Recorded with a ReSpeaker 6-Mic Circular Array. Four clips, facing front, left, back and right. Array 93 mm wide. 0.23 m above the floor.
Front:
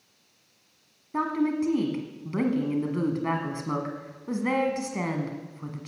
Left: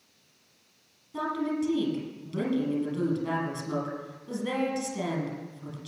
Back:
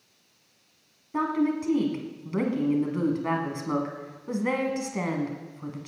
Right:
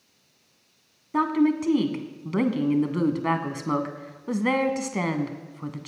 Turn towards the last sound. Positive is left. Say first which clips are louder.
# right 8 dB, even
turn(degrees=-85)